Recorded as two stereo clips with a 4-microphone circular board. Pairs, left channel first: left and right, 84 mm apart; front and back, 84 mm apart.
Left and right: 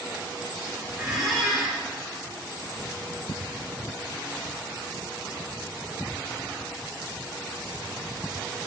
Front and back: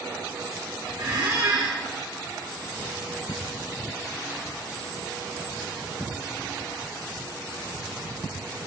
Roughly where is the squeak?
Behind.